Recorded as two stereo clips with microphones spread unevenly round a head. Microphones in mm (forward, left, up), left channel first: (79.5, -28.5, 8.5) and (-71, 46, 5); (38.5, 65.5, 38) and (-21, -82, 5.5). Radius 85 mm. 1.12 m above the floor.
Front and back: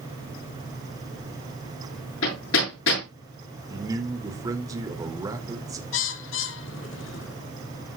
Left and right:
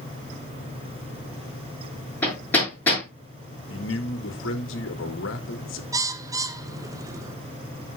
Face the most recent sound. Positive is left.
turn(degrees=-45)